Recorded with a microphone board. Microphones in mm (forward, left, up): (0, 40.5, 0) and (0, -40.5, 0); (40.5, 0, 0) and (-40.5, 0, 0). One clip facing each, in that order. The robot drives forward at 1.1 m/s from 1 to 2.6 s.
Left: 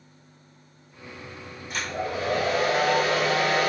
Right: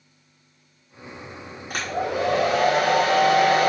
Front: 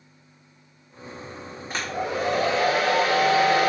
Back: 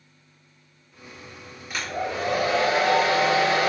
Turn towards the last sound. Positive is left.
turn(degrees=-110)